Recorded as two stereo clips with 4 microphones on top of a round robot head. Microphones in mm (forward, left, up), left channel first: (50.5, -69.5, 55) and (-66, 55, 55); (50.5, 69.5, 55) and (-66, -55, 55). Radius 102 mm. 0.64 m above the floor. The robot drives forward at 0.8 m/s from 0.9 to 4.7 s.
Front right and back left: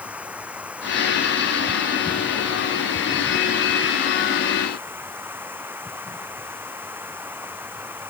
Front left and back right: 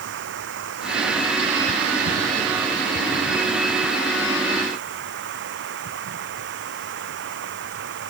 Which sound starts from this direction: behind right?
Running water, at 0.0 s.